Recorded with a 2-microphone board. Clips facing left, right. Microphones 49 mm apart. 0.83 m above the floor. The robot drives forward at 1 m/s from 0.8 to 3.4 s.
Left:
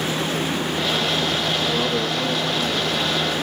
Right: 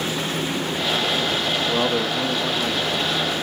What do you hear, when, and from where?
1.7 s a man speaking: 35° right (ahead or behind), 1.2 m; by 3.3 s 15° right (ahead or behind), 2.5 m